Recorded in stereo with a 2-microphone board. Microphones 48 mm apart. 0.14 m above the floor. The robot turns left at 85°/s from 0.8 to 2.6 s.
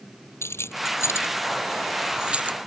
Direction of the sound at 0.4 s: 70° left (ahead or behind).